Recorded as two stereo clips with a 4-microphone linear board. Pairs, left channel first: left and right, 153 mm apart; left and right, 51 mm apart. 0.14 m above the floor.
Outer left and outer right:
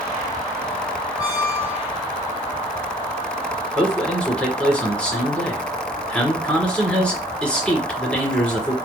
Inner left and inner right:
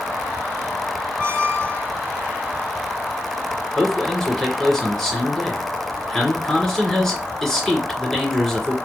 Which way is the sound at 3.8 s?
5° left (ahead or behind).